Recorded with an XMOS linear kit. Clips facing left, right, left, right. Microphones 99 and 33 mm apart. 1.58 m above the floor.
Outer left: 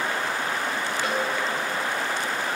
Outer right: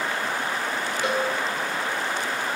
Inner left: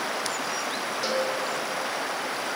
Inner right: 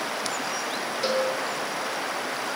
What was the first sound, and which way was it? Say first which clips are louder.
A cowbell: outer right 3 dB, inner right 3 dB; 20° right (ahead or behind).